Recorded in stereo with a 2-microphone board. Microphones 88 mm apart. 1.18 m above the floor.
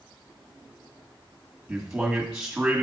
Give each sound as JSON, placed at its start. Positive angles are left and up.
{"t": 1.7, "sound": "a man speaking", "side_deg": -5, "distance_m": 1.6}